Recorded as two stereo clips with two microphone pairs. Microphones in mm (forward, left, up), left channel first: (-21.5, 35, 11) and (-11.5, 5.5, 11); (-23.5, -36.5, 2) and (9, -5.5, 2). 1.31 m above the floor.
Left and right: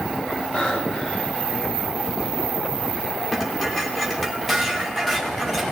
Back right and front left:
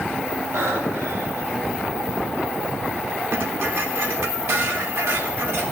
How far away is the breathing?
About 5.5 m.